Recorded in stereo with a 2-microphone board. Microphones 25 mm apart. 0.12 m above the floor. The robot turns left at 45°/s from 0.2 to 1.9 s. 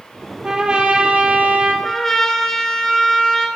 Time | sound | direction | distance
0.4 | a trumpet | 30° right | 0.8 m
1.8 | a trumpet | 20° left (ahead or behind) | 0.8 m